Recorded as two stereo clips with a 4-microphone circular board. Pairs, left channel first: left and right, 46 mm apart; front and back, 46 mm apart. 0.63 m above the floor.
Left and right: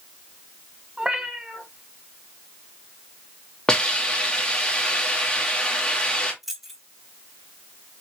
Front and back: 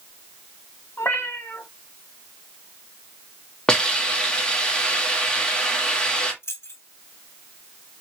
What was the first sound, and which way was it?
A cat meowing, 20° right.